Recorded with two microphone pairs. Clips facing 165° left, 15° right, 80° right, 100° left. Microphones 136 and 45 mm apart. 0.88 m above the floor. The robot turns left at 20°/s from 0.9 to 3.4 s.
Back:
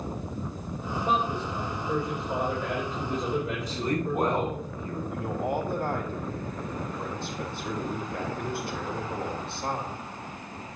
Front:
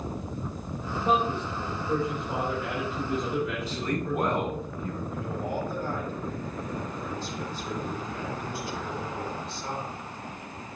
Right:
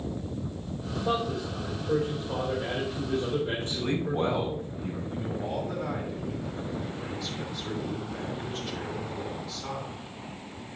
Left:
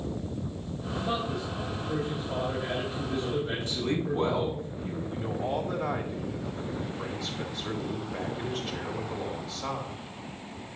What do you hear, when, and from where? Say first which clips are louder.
1.0 s a man speaking: front 2 dB, right 3 dB; 90° right, 4 m; by 4.7 s 135° right, 4 m
3.7 s a man speaking: back 1 dB, even; 125° right, 5 m
5.1 s a man speaking: back 4 dB, left 3 dB; 175° right, 3 m